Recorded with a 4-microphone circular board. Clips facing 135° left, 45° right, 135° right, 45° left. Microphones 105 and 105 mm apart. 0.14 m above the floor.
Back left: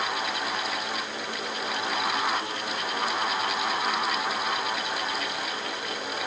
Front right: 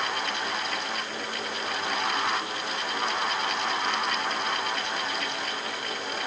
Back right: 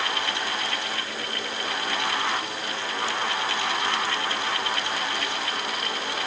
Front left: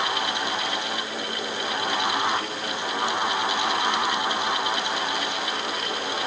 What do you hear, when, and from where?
Only background noise.